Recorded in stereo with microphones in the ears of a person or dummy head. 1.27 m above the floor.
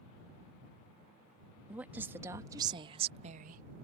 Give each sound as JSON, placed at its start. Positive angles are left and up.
{"t": 1.7, "sound": "a woman speaking", "side_deg": -5}